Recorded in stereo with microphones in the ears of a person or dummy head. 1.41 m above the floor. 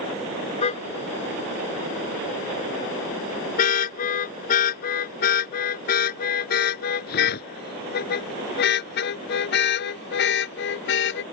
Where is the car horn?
35° left (ahead or behind); by 11.2 s 65° left (ahead or behind).